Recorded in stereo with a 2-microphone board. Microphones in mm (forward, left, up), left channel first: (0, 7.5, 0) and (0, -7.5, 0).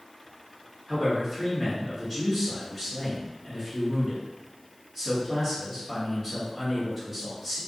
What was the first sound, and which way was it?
A man speaking, 5° right (ahead or behind).